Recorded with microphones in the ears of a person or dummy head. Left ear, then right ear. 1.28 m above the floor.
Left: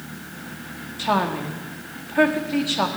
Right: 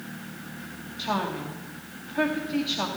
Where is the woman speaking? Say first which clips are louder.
Left 7 dB; 15° left (ahead or behind), 1.9 m.